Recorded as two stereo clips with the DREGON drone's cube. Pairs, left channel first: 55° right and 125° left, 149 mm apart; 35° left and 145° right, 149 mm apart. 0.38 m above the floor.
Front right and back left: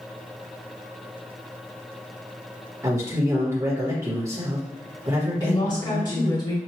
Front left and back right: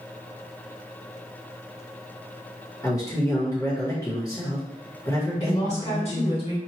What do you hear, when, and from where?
2.8 s a man speaking: 75° left, 1.1 m
5.4 s a woman speaking: straight ahead, 1.9 m